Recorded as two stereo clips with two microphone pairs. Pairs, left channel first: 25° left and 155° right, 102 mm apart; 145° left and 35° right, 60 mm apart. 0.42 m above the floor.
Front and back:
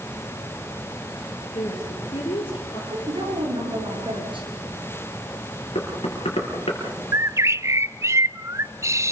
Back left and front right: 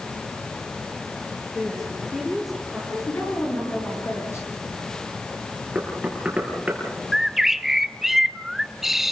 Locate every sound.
1.5 s a woman speaking: 55° left, 9 m
2.9 s a woman speaking: straight behind, 9.5 m
5.8 s knocking: 30° left, 6 m
7.1 s a bird: 120° right, 0.5 m